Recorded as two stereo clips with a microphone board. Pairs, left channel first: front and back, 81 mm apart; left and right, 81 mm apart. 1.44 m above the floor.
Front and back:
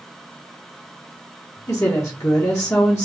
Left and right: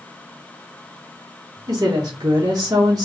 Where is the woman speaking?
50° right, 1.0 m.